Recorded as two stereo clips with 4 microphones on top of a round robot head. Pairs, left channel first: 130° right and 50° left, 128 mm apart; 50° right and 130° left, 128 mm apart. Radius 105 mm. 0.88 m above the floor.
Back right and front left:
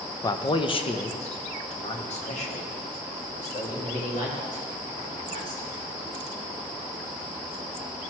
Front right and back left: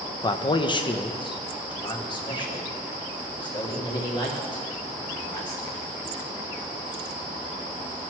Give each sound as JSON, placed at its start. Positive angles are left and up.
{"t": 0.2, "sound": "a man speaking", "azimuth_deg": -85, "distance_m": 0.6}